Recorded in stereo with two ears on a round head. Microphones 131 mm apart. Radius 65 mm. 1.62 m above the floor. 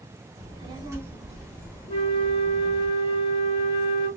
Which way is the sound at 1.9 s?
40° left (ahead or behind).